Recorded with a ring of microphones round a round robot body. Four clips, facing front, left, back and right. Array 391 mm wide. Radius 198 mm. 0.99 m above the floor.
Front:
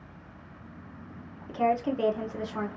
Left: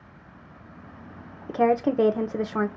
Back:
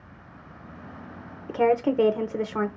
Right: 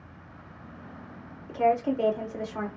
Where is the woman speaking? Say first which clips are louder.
Left 3 dB, back 5 dB; 125° left, 0.9 m.